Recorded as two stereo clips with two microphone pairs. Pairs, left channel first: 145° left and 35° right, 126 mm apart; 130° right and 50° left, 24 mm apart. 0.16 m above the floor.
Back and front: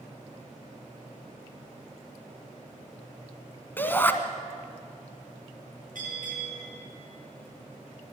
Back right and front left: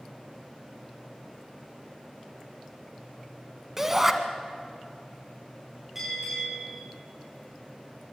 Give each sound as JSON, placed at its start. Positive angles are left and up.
{"t": 3.8, "sound": "a shout", "azimuth_deg": 105, "distance_m": 1.6}
{"t": 6.0, "sound": "a bell", "azimuth_deg": -30, "distance_m": 9.0}